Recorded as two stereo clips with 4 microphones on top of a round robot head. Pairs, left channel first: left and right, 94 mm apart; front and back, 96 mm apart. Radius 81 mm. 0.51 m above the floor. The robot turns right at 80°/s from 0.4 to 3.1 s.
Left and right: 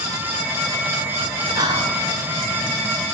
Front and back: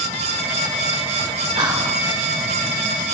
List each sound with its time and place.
1.6 s whispering: 140° right, 2.5 m; by 2.0 s 110° right, 2.5 m